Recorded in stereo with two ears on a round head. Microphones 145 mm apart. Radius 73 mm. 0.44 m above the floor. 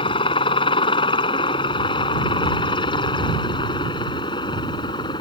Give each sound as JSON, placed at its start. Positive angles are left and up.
{"t": 0.0, "sound": "a helicopter", "side_deg": 30}